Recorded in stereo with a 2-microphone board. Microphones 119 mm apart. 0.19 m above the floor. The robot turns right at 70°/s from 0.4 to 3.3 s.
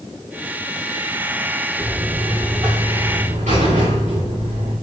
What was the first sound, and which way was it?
A buzzer, 165° left.